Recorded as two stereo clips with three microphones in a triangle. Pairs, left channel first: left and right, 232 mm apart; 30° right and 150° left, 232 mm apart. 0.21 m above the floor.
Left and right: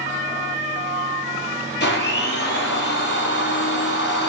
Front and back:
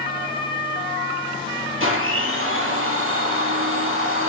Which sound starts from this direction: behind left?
A blender, at 1.8 s.